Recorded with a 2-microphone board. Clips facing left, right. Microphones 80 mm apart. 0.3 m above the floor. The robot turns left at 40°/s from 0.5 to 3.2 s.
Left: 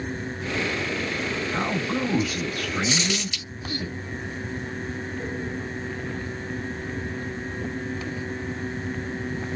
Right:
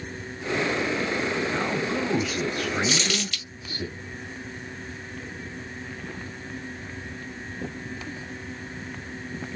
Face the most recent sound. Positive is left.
turn(degrees=15)  # may be behind; listen again after turning